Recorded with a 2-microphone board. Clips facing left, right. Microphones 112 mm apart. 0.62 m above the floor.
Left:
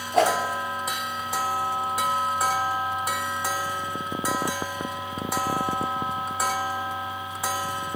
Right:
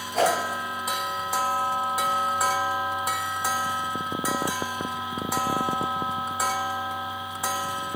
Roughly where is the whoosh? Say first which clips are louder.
Left 2 dB; left.